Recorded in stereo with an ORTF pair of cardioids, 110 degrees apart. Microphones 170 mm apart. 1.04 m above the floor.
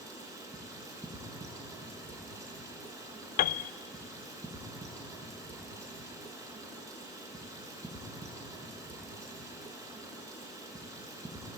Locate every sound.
0.0 s running water: 20° right, 7 m
3.4 s a piano: 60° left, 0.6 m